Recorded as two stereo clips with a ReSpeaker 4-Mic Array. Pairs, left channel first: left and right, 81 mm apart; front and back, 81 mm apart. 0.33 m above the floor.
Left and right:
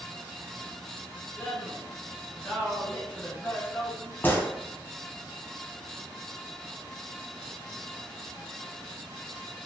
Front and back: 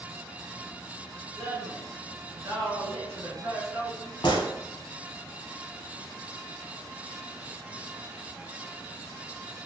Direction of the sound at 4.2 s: 25° left.